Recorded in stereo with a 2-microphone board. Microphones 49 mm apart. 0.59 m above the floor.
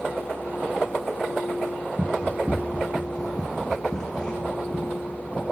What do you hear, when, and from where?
2.0 s running footsteps: 50° right (ahead or behind), 1.0 m; by 5.4 s 20° left (ahead or behind), 2.5 m